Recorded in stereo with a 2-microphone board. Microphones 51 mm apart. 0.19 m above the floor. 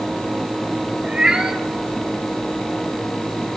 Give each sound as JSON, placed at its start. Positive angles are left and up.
{"t": 1.0, "sound": "a cat meowing", "side_deg": -15, "distance_m": 2.0}